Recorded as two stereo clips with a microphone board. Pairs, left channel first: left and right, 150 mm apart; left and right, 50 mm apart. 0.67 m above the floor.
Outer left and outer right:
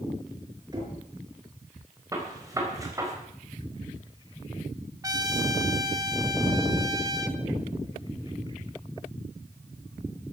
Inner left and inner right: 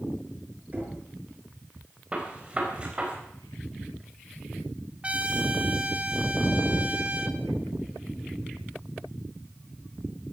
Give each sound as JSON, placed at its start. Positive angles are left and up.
{"t": 0.7, "sound": "knocking", "side_deg": -30, "distance_m": 5.5}
{"t": 2.1, "sound": "a gunshot", "side_deg": -25, "distance_m": 4.0}
{"t": 5.0, "sound": "a trumpet", "side_deg": -25, "distance_m": 1.2}